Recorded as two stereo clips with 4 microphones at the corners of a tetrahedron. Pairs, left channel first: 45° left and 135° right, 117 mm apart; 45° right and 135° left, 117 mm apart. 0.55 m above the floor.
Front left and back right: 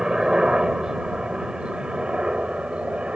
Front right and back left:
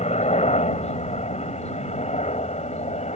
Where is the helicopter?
50° right; by 3.2 s 55° right.